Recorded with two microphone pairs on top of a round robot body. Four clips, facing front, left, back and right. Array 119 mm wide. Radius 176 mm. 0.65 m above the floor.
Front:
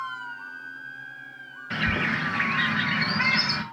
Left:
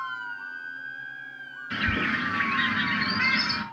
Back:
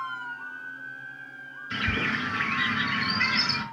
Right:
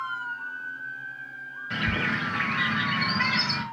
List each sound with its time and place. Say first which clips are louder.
1.7 s a bird: left 1 dB, front 2 dB; 25° right, 2.5 m